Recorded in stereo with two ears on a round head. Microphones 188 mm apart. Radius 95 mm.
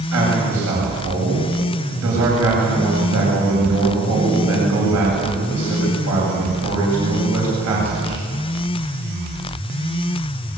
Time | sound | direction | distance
0.1 | a man speaking | 80° right | 8 m